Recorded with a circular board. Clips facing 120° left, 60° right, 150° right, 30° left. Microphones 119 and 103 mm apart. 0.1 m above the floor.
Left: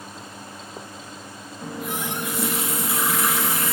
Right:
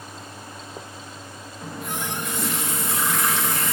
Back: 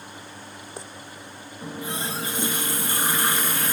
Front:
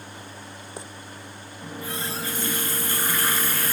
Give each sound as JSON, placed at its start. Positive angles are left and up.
{"t": 1.6, "sound": "a running tap", "azimuth_deg": -160, "distance_m": 0.8}